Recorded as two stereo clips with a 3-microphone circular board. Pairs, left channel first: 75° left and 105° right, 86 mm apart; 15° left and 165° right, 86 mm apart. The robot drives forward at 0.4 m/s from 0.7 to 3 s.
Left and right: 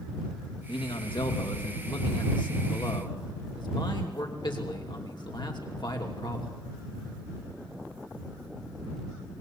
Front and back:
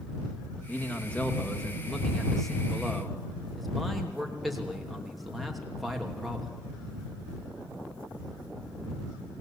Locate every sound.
0.7 s a man speaking: 85° left, 3 m; by 6.6 s 105° left, 3 m